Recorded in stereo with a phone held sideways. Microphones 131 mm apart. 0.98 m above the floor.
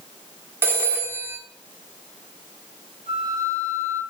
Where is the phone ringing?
20° right (ahead or behind), 1.2 m.